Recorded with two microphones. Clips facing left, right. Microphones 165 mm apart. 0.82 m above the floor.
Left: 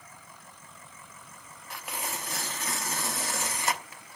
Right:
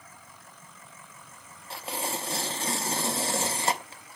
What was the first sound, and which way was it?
Tearing paper, 30° right (ahead or behind).